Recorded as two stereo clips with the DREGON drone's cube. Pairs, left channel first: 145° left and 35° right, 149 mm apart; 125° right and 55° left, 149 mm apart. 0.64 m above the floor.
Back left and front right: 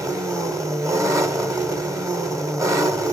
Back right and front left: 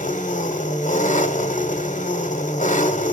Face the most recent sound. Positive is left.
turn(degrees=-100)